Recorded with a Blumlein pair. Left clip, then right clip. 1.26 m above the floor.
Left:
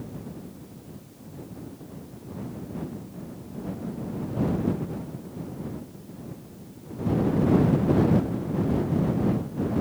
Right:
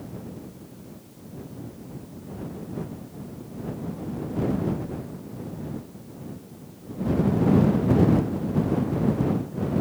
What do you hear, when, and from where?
Only background noise.